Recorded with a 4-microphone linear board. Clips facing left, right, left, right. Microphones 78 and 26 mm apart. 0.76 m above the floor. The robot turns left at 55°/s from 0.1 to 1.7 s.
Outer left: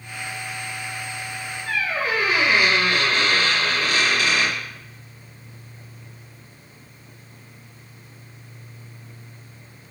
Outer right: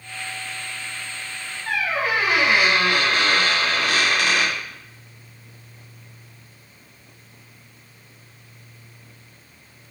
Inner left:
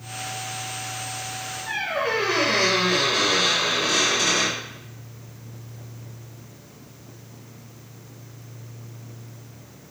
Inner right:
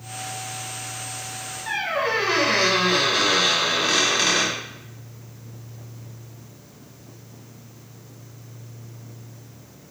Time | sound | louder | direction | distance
1.7 | a squeak | outer right 1 dB, inner right 2 dB | 65° right (ahead or behind) | 1.2 m